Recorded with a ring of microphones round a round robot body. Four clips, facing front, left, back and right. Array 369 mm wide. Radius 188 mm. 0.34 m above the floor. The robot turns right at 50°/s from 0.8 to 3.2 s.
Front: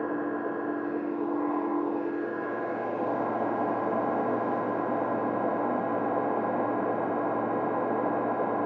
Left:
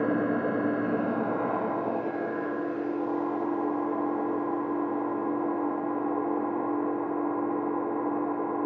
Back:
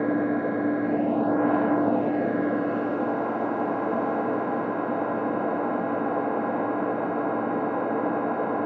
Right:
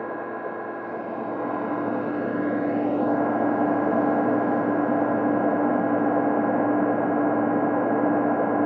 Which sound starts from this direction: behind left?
An engine running, at 0.0 s.